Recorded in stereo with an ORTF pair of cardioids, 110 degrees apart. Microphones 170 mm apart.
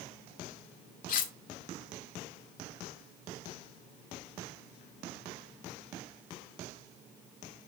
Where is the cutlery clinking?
50° left, 1.4 m.